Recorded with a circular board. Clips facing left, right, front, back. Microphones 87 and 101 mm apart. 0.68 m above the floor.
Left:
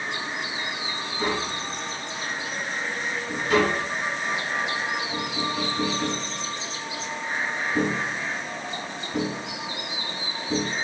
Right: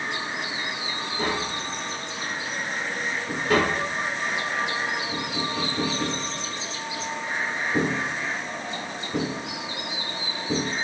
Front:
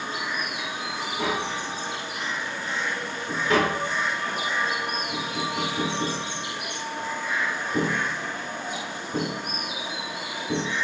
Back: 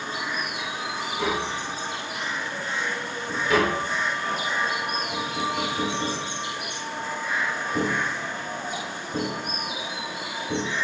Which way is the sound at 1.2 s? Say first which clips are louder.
Left 1 dB, even; 55° right.